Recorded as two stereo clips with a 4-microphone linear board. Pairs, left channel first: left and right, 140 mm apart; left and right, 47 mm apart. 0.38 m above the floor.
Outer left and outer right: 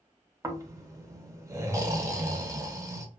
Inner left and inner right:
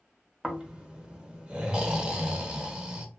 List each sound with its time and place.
0.4 s snoring: 20° right (ahead or behind), 0.6 m